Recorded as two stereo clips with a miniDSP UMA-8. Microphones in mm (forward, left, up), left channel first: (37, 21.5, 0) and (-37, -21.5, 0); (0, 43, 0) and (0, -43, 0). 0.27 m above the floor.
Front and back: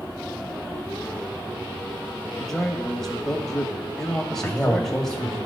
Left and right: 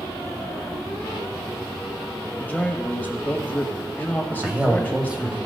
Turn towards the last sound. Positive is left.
turn(degrees=-30)